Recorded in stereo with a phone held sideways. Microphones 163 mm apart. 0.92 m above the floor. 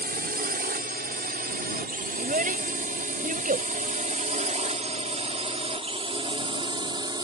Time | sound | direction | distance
0.0 | a drone | 70° right (ahead or behind) | ?
2.2 | a child speaking | 60° right (ahead or behind) | ?